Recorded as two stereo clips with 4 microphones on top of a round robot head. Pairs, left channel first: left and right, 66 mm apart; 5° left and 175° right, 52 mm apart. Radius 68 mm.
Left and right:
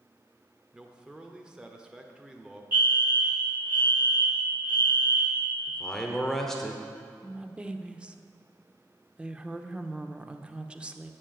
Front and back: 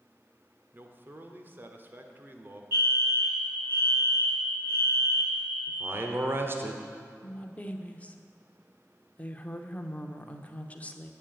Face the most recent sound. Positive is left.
turn(degrees=-30)